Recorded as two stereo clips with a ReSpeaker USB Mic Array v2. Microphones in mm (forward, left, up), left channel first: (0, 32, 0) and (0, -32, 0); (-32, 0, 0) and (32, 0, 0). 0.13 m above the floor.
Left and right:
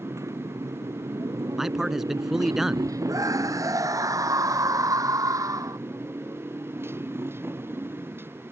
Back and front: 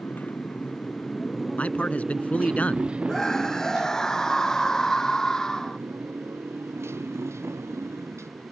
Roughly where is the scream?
Right.